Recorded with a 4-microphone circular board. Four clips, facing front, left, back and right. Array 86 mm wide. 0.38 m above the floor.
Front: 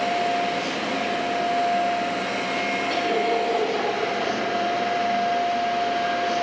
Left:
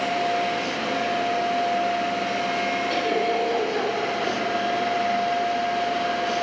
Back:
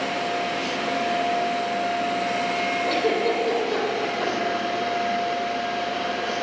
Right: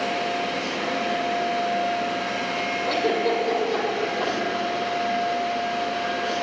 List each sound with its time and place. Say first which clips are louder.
2.9 s a giggle: right 3 dB, back 1 dB; 135° right, 3 m